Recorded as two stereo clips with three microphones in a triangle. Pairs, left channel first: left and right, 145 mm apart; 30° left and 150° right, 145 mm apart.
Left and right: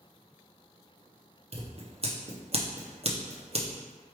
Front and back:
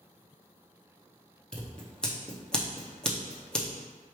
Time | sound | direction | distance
1.5 | scissors | 55° right | 0.8 m